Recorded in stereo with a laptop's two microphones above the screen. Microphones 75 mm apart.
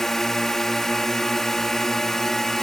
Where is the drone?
5° left (ahead or behind).